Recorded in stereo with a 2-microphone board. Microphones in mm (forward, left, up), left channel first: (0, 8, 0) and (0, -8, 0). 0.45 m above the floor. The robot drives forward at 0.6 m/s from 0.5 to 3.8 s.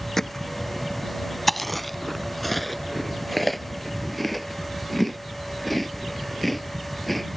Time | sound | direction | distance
0.2 | hammering | 30° left (ahead or behind) | ?
1.5 | chewing | 5° left (ahead or behind) | ?